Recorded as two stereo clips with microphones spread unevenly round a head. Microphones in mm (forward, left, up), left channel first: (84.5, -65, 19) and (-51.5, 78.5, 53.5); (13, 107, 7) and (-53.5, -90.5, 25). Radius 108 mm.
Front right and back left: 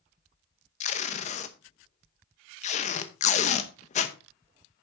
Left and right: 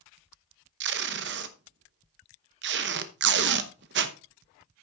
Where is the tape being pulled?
110° right, 0.8 m.